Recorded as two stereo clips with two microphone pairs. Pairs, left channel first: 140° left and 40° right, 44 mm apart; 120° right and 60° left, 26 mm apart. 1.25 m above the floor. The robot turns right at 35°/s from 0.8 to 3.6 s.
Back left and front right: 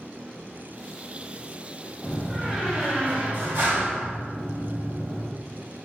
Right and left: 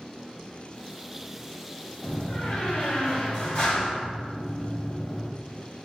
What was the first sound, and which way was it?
A door slam, 135° right.